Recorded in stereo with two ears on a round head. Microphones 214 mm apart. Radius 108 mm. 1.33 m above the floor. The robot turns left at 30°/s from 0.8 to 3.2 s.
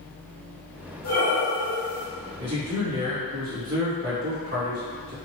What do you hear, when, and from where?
1.0 s breathing: 40° left, 1.7 m; by 2.0 s 10° left, 1.7 m
2.4 s a man speaking: 15° right (ahead or behind), 2.0 m; by 5.1 s 40° right (ahead or behind), 2.0 m